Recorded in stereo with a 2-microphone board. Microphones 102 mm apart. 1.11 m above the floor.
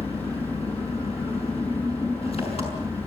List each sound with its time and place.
0.0 s an engine running: 70° left (ahead or behind), 6 m